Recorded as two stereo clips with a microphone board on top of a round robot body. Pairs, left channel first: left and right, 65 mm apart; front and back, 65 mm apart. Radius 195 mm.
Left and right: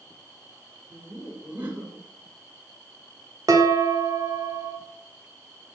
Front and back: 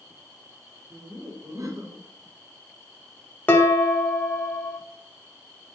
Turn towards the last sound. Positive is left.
turn(degrees=-60)